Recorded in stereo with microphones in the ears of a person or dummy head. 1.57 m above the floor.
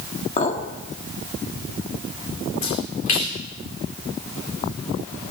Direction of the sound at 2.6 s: 40° left (ahead or behind).